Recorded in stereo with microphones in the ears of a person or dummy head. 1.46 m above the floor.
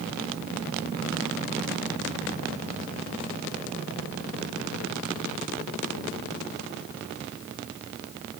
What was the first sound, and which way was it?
Only background noise.